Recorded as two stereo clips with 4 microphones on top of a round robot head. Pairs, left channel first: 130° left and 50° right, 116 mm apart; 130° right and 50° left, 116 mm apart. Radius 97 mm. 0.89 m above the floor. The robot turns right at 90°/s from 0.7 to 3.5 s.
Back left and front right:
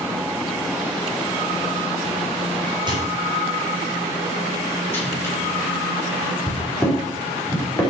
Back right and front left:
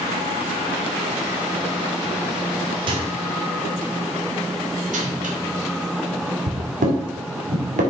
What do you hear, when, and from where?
2.9 s a microwave: straight ahead, 2.5 m; by 7.8 s 60° left, 2.5 m